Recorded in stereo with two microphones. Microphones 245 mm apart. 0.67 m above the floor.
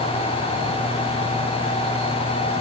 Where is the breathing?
No breathing in this recording.